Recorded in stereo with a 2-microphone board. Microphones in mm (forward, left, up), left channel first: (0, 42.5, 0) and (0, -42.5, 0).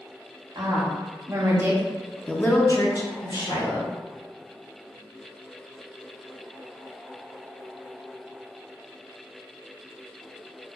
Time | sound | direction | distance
0.6 | a woman speaking | 50° right (ahead or behind) | 1.3 m